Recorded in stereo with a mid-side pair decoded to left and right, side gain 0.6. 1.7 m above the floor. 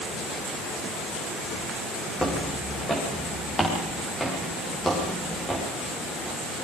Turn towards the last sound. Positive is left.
turn(degrees=5)